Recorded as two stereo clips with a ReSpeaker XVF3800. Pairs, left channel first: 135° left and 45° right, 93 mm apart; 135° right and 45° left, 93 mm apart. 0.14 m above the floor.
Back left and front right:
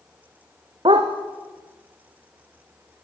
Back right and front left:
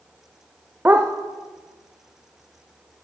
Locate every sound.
0.8 s a dog barking: 25° right, 3.5 m